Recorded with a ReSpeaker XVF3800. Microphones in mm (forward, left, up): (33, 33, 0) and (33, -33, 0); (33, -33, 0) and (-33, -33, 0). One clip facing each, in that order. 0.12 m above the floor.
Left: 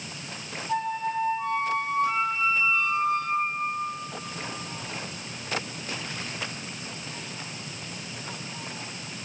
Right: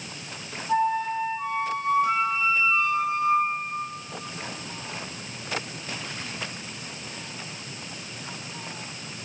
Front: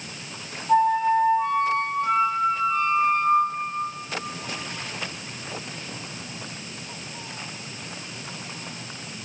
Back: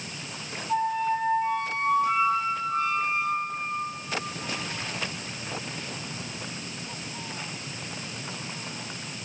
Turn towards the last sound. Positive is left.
turn(degrees=-15)